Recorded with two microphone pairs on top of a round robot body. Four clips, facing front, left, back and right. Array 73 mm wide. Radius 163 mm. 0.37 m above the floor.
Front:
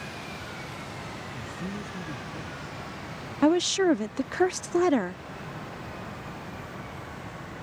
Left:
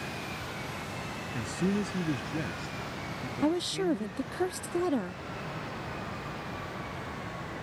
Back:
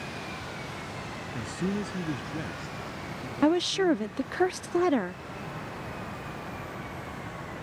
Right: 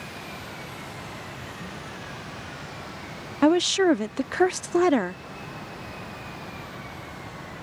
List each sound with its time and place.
1.3 s a man speaking: 135° left; by 4.4 s 120° left
3.4 s a woman speaking: 85° right